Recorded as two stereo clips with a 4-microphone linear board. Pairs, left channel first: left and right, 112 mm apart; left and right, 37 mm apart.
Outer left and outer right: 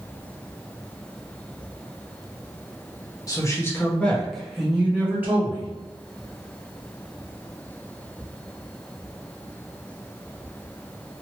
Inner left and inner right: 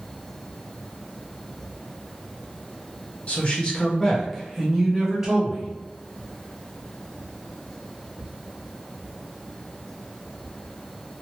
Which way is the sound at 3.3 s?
35° left (ahead or behind).